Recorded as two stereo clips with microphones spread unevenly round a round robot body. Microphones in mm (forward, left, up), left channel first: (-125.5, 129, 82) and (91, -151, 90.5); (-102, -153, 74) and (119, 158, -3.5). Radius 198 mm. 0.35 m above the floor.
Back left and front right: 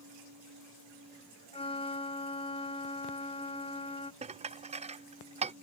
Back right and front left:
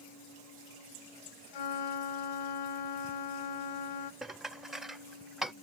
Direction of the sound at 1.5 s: 155° right.